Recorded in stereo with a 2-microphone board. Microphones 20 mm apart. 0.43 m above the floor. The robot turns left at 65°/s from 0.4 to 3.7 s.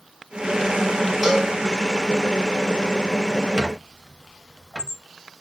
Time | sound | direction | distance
1.2 | a cowbell | 15° right (ahead or behind) | 2 m
3.6 | a squeak | 50° right (ahead or behind) | 0.7 m